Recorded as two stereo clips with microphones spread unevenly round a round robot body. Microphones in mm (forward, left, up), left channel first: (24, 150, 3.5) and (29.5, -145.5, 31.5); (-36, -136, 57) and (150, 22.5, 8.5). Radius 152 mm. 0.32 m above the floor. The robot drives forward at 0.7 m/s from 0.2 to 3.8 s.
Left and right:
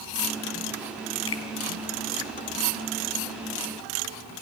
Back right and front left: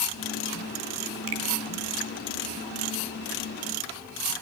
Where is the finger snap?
50° left, 2.5 m; by 1.4 s 55° left, 2.5 m.